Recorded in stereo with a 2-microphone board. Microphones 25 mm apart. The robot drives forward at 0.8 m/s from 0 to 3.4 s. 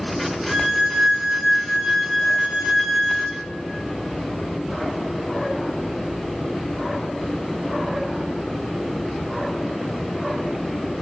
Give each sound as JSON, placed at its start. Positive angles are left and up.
{"t": 0.5, "sound": "a violin", "side_deg": -25, "distance_m": 1.6}